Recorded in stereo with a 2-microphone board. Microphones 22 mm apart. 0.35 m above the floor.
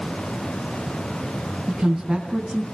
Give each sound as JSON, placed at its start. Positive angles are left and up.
{"t": 1.7, "sound": "a woman speaking", "side_deg": -45, "distance_m": 3.0}